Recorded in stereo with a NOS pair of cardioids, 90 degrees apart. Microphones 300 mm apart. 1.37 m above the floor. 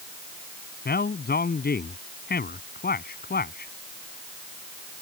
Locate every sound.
0.8 s a man speaking: 30° left